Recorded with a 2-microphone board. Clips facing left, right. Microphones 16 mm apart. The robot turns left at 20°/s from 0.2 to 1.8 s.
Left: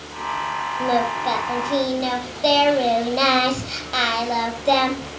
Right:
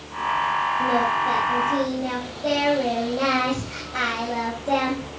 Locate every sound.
0.8 s singing: 40° left (ahead or behind), 5.5 m; by 5.1 s 60° left (ahead or behind), 5.5 m